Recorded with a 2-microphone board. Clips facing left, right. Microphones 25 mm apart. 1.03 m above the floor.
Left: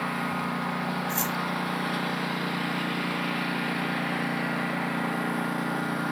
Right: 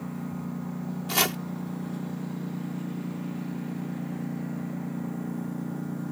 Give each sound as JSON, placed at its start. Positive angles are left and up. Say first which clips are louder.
{"t": 0.0, "sound": "a lawn mower", "louder": "left 7 dB", "side_deg": 70}
{"t": 1.1, "sound": "chopping", "louder": "right 3 dB", "side_deg": -80}